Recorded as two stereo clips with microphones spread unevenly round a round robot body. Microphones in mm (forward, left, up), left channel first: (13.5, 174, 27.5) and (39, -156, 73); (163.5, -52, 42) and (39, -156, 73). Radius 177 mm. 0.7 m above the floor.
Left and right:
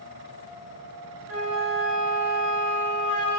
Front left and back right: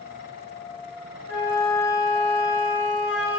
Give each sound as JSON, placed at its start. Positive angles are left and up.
{"t": 1.3, "sound": "a flute", "azimuth_deg": -120, "distance_m": 1.5}